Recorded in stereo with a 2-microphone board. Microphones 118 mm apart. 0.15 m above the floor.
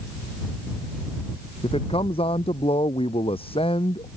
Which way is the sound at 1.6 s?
50° left (ahead or behind).